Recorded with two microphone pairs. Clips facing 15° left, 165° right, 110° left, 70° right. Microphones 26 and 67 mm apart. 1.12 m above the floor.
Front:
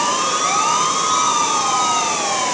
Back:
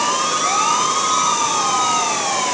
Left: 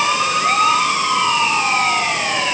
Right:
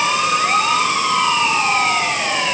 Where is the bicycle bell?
I don't hear a bicycle bell.